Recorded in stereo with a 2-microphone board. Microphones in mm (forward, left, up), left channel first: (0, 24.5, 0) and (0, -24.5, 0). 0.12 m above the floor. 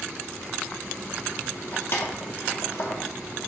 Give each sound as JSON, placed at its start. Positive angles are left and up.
{"t": 1.7, "sound": "keys jangling", "side_deg": 60, "distance_m": 1.8}